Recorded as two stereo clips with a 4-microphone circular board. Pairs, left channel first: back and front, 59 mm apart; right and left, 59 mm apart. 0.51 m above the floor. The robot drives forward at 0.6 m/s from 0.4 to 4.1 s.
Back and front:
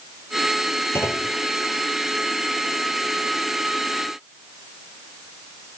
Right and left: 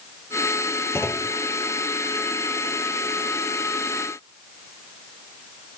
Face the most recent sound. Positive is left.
turn(degrees=-145)